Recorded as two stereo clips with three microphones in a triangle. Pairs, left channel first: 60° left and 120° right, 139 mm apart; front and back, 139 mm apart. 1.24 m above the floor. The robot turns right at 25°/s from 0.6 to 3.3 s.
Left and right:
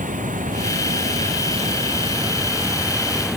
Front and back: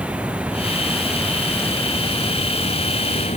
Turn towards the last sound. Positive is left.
turn(degrees=-30)